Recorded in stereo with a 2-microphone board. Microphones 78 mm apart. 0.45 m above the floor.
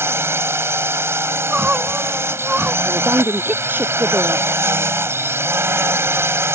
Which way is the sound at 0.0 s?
35° right (ahead or behind).